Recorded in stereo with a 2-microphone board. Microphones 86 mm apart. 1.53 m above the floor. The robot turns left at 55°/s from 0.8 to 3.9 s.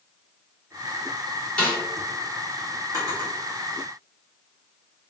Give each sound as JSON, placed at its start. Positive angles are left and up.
{"t": 1.6, "sound": "a snare drum", "side_deg": 15, "distance_m": 1.3}
{"t": 2.9, "sound": "a drawer", "side_deg": -40, "distance_m": 1.1}